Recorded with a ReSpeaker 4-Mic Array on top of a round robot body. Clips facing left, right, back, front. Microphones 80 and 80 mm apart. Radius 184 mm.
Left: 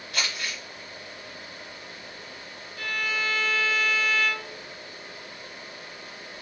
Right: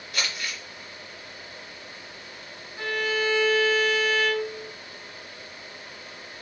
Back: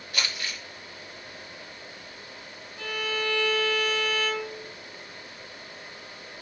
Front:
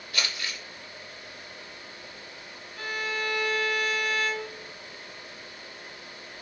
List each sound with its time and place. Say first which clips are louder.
0.1 s crumpling: even, even; 115° left, 1.5 m
2.8 s a violin: right 4 dB, back 1 dB; 25° right, 0.7 m